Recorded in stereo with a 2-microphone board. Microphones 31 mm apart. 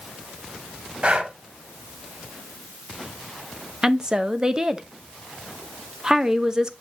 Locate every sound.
1.0 s breathing: 40° right (ahead or behind), 1.0 m
3.8 s a woman speaking: 20° right (ahead or behind), 0.8 m